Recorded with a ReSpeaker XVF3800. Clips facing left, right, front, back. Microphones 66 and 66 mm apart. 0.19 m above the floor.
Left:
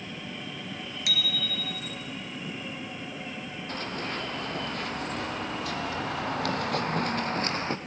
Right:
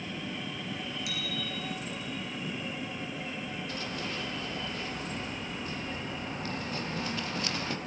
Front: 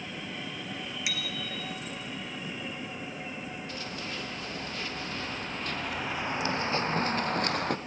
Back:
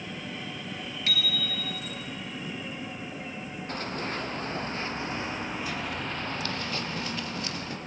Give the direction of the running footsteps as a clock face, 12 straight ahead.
7 o'clock.